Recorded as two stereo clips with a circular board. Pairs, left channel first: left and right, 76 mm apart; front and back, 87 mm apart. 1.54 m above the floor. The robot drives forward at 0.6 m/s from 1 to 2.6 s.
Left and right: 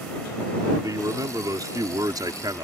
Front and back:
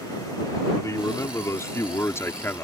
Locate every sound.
0.8 s a man speaking: 55° right; by 2.6 s 65° right